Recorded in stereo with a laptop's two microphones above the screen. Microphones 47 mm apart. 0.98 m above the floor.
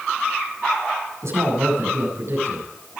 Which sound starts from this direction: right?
A man speaking, at 1.2 s.